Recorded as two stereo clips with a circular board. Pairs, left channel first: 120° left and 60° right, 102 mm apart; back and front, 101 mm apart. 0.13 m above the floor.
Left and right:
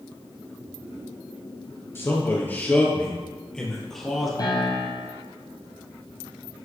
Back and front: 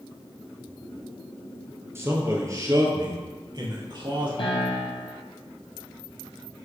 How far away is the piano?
About 1.8 m.